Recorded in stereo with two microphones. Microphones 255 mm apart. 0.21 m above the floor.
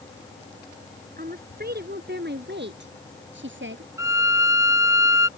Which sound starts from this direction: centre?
A violin, at 4.0 s.